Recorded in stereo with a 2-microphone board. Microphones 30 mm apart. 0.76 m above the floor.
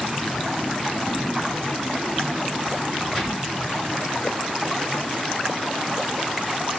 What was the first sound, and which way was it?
A gunshot, centre (ahead or behind).